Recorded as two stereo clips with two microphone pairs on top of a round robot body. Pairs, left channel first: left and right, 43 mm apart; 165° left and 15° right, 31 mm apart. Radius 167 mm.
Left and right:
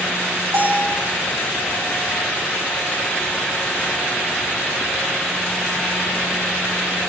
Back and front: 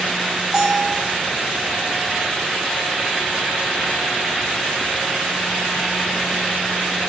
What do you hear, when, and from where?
0.5 s a bell: 95° right, 4 m